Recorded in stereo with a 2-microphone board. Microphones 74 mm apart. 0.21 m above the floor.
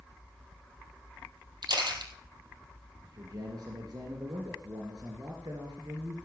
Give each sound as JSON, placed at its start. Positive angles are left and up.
{"t": 1.6, "sound": "a camera shutter", "side_deg": -75, "distance_m": 3.0}
{"t": 3.0, "sound": "a man speaking", "side_deg": -70, "distance_m": 2.5}